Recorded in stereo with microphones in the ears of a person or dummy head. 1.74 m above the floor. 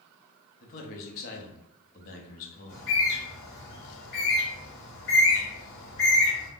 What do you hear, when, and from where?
0.6 s a man speaking: 50° left (ahead or behind), 0.7 m
2.7 s a bird: 45° left (ahead or behind), 1.7 m